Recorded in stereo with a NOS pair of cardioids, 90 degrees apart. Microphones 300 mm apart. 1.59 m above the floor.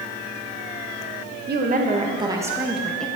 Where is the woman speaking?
35° right, 1.3 m; by 3.1 s 5° left, 1.7 m.